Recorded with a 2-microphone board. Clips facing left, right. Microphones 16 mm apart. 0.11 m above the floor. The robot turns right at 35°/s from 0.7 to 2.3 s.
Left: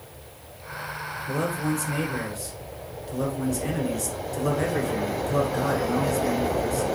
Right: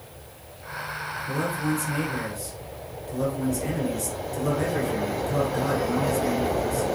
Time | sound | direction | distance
1.3 | a man speaking | 20° left (ahead or behind) | 1.5 m